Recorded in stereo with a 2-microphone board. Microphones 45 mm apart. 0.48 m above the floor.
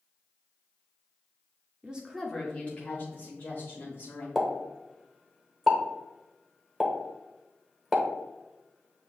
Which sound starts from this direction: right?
A woman speaking, at 1.8 s.